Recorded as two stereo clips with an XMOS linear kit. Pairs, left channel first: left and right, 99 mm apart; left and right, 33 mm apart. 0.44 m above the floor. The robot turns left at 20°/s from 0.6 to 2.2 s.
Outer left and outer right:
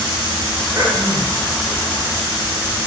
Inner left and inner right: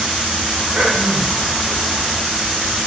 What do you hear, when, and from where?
0.8 s throat clearing: 40° right (ahead or behind), 2.5 m; by 1.4 s 50° right (ahead or behind), 2.5 m